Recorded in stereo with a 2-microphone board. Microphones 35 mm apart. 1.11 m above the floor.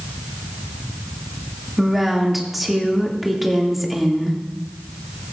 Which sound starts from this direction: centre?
A woman speaking, at 1.8 s.